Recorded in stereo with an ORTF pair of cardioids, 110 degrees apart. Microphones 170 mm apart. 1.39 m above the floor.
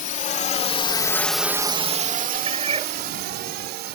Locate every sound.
0.0 s a drone: 50° left; by 4.0 s 80° right
2.5 s a cat meowing: 40° right